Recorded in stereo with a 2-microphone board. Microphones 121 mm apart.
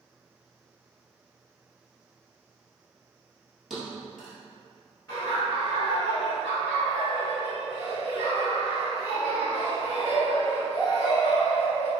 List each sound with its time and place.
3.7 s a thud: centre (ahead or behind), 1.3 m
5.1 s laughter: 25° left (ahead or behind), 1.5 m